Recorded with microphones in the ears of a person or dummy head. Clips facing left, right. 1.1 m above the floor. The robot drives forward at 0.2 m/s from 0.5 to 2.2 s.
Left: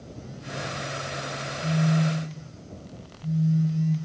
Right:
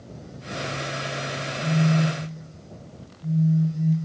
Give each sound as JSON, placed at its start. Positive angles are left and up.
{"t": 1.6, "sound": "a phone buzzing", "side_deg": -45, "distance_m": 1.0}